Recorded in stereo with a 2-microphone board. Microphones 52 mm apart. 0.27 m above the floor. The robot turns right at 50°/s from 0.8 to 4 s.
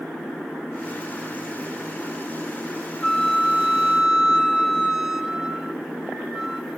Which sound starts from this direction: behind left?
A flute, at 3.0 s.